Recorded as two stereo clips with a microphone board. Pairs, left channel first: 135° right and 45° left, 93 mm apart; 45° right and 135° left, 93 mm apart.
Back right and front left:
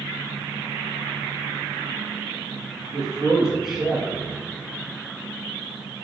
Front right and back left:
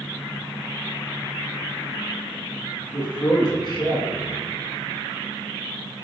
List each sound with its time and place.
2.9 s a man speaking: 40° right, 2 m